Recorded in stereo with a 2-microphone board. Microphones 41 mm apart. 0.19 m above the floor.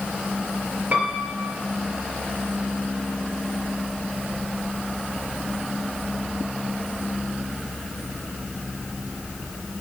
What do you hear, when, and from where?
0.9 s a piano: 40° right (ahead or behind), 3.5 m